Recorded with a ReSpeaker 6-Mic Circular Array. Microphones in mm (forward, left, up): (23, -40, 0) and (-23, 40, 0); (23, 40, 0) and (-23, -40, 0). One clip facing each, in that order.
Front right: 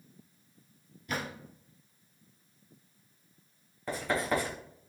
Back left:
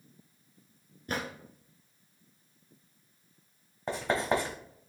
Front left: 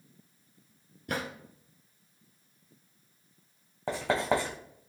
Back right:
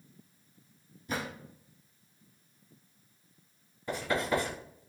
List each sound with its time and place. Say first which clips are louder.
1.1 s a drawer: back left 1 dB, front left 1 dB; 70° left, 2 m
3.9 s writing: back left 2 dB, front left 3 dB; 60° left, 2.5 m